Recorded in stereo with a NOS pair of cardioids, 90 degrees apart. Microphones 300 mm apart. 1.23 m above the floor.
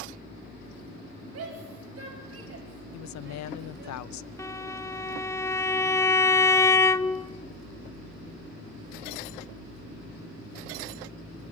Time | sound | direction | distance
1.3 | a shout | 55° right | 9 m
2.9 | a woman speaking | 65° left | 0.8 m
4.4 | a violin | 10° left | 0.9 m